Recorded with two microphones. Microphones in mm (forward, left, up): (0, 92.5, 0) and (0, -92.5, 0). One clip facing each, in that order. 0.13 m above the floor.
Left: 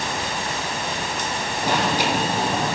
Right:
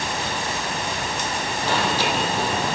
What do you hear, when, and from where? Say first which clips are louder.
1.6 s an alarm: left 2 dB; 15° left (ahead or behind), 3 m